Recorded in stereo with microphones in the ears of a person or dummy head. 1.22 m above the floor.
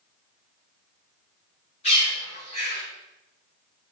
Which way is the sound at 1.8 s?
35° left (ahead or behind).